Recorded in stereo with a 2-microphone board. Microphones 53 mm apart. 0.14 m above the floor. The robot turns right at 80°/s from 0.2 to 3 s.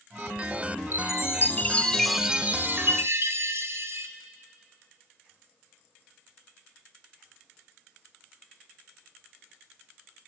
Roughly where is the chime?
Left.